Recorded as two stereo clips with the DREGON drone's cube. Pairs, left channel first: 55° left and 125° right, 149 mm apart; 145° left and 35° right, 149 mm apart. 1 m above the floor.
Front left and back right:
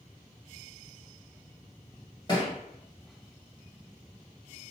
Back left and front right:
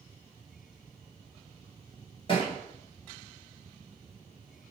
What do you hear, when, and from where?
2.3 s a thud: 105° left, 1.3 m